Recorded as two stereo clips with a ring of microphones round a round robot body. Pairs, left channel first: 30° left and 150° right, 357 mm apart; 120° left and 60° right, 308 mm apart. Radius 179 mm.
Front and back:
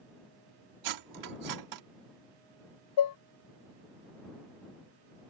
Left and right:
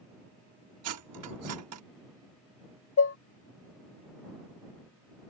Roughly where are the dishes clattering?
Left.